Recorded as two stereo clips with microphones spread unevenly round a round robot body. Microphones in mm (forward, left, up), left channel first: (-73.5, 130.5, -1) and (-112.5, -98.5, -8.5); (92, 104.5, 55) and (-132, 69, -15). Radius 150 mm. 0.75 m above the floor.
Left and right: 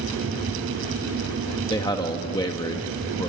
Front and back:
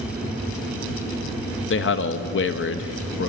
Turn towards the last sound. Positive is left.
turn(degrees=15)